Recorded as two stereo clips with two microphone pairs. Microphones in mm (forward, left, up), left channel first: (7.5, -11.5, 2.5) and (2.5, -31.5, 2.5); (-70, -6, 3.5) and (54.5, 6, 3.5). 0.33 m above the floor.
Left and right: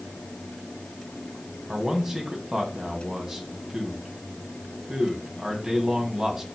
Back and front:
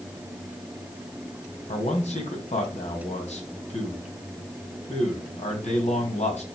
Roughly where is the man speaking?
Behind.